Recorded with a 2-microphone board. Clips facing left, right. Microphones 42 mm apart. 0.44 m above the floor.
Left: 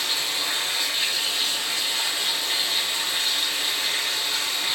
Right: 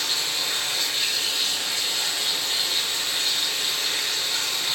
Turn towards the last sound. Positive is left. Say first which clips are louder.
# left 1 dB
turn(degrees=10)  # may be behind; listen again after turning